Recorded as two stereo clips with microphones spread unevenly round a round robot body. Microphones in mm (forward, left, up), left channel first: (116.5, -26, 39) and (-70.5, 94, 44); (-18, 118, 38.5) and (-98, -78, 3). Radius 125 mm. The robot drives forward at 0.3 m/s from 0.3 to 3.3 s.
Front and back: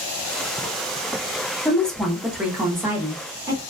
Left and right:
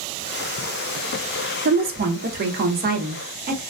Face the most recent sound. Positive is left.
turn(degrees=-140)